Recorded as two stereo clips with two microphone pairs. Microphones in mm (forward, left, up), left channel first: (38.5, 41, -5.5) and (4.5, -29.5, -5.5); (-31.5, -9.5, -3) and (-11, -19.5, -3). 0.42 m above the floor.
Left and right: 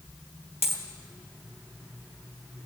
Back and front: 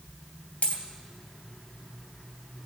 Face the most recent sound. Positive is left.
turn(degrees=-175)